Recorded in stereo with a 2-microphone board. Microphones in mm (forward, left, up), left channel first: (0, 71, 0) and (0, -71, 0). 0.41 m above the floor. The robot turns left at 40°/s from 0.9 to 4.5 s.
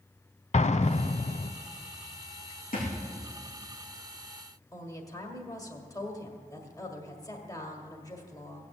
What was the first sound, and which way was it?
An explosion, 55° left (ahead or behind).